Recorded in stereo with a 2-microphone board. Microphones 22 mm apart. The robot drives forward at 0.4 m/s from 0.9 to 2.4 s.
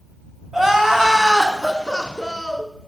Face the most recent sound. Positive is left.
turn(degrees=-10)  # may be behind; listen again after turning